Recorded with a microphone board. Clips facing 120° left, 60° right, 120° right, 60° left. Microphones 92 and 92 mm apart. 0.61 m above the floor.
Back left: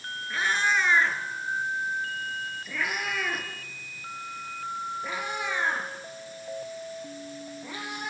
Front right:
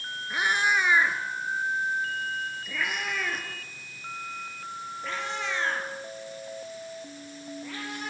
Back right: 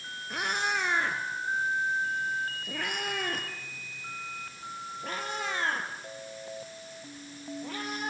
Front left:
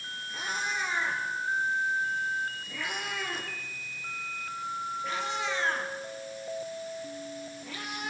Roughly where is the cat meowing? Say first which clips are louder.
Front right 1 dB, back right 3 dB; behind right.